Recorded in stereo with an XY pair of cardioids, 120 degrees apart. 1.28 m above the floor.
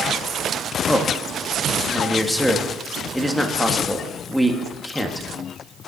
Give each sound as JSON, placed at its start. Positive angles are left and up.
{"t": 0.9, "sound": "a man speaking", "azimuth_deg": 5, "distance_m": 1.6}